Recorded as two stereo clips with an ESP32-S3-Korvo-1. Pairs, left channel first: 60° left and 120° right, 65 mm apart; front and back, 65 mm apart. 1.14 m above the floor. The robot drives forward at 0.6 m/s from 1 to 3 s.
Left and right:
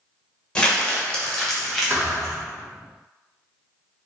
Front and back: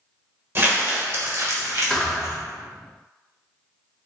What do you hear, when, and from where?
0.6 s crumpling: 135° left, 1.2 m; by 2.3 s 155° left, 1.8 m
1.9 s a thud: 80° right, 1.1 m; by 2.4 s 105° right, 1.1 m